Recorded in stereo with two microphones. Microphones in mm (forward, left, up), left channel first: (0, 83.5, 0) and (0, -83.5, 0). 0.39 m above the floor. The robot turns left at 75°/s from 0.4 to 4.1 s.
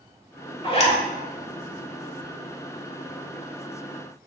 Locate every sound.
0.6 s a zipper: 30° left (ahead or behind), 0.9 m; by 1.0 s 45° left (ahead or behind), 0.9 m